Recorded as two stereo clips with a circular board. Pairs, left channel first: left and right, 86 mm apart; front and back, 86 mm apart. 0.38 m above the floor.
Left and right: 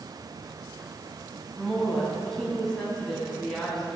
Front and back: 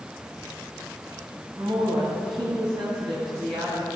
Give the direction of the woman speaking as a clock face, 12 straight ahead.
6 o'clock.